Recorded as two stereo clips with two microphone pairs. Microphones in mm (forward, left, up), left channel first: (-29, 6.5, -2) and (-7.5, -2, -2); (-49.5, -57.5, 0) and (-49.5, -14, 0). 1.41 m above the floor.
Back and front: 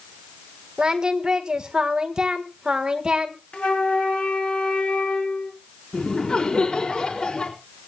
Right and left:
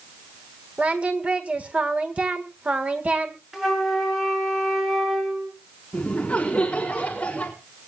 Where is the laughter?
155° right, 4.5 m.